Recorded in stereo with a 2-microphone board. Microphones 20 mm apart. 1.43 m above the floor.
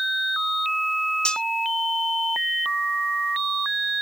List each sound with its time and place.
1.2 s cutlery clinking: 45° left (ahead or behind)